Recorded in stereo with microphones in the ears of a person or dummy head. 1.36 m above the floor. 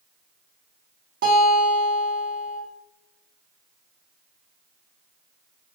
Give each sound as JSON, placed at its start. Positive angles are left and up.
{"t": 1.2, "sound": "a guitar", "side_deg": -60, "distance_m": 0.7}